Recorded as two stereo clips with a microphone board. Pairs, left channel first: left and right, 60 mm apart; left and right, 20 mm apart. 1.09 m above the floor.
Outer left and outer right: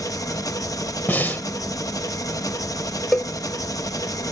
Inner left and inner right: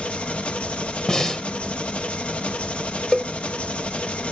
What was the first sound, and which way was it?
An engine running, 75° left (ahead or behind).